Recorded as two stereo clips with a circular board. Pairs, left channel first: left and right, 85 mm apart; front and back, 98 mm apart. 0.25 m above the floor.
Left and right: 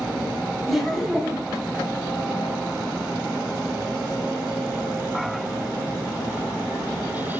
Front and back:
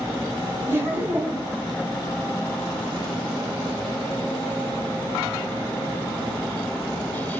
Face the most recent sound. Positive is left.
turn(degrees=180)